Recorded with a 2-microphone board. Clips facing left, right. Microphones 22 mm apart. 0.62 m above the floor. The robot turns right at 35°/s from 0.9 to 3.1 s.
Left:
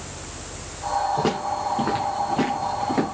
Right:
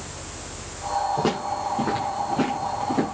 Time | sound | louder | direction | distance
1.2 | footsteps | left 1 dB | 10° right (ahead or behind) | 6.5 m